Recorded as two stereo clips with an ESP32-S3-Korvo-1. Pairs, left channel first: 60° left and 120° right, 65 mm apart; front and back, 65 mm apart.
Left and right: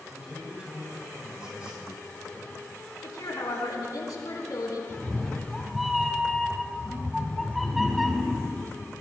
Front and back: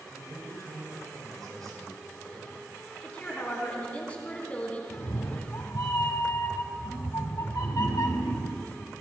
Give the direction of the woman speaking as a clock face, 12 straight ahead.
10 o'clock.